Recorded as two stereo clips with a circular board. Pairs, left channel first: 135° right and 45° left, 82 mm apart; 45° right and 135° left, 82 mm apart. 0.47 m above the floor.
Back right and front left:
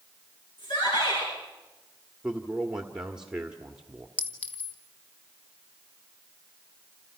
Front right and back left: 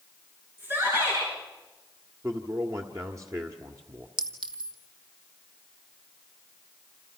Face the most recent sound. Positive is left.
turn(degrees=155)